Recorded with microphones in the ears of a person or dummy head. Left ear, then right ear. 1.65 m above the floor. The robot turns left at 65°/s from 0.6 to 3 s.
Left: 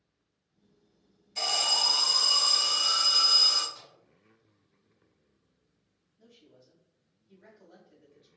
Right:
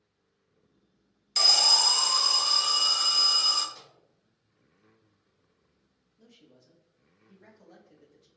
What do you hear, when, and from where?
1.4 s an alarm: 70° right, 0.5 m; by 3.6 s 175° right, 0.5 m
3.7 s a microwave: 70° right (ahead or behind), 1.1 m
6.2 s a man speaking: 80° right, 0.9 m